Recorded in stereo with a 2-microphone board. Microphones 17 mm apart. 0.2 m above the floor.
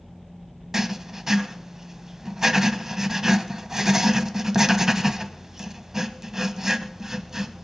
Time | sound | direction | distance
0.7 | writing | 20° right (ahead or behind) | 1.0 m